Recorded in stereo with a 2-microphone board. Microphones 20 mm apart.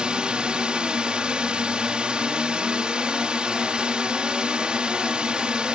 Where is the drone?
60° right (ahead or behind).